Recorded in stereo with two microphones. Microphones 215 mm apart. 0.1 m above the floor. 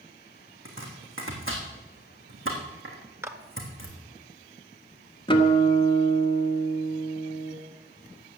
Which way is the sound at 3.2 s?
10° right (ahead or behind).